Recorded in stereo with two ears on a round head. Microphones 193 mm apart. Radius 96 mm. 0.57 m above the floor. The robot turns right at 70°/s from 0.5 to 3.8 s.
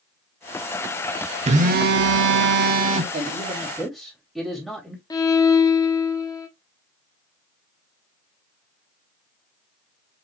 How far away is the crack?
I don't hear a crack.